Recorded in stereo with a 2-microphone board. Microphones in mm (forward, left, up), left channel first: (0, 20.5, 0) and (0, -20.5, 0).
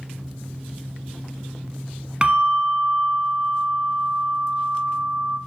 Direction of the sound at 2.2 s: 25° right (ahead or behind).